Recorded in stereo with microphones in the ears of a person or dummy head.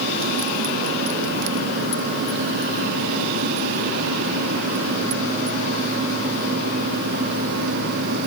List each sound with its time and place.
Only background noise.